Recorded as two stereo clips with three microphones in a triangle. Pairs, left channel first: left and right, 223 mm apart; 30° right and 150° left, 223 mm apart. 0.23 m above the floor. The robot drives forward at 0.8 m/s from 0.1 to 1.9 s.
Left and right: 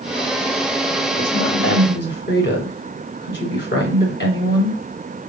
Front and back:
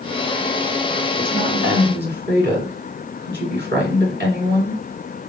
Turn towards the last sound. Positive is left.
turn(degrees=120)